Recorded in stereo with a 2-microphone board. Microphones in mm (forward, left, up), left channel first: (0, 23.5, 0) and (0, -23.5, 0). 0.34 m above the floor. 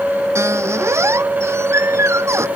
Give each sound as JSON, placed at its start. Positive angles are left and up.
{"t": 0.3, "sound": "a squeak", "side_deg": -80}